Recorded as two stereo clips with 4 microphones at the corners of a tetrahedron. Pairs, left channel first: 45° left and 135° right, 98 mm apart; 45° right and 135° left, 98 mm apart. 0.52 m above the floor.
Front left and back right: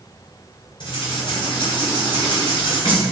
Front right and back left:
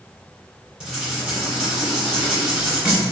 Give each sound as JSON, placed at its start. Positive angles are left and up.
{"t": 0.8, "sound": "writing", "azimuth_deg": 55, "distance_m": 1.9}